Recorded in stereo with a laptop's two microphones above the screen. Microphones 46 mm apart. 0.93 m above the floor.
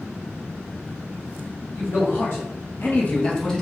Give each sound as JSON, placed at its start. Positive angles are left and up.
{"t": 1.7, "sound": "a man speaking", "side_deg": 50, "distance_m": 1.6}